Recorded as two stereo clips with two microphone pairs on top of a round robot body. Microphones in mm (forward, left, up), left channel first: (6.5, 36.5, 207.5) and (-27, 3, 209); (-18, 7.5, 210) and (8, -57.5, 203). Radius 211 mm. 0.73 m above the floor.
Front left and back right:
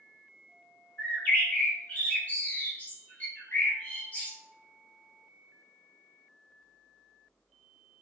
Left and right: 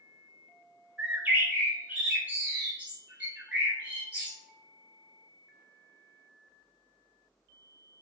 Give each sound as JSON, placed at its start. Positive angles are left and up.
{"t": 1.0, "sound": "a bird", "azimuth_deg": -5, "distance_m": 2.5}